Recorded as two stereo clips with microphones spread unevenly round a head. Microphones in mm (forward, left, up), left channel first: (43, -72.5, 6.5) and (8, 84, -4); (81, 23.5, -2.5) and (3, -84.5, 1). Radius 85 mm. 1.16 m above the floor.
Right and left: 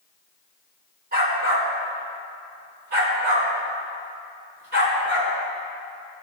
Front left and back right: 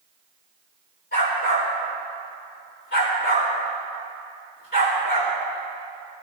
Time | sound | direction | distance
1.1 | a dog barking | 70° left | 4 m